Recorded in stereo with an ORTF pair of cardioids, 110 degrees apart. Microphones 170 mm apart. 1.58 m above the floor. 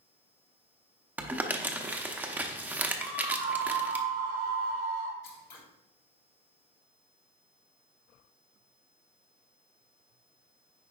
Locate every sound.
1.2 s crumpling: 10° right, 0.9 m
3.0 s a scream: 70° right, 1.4 m
5.2 s scissors: 60° left, 1.8 m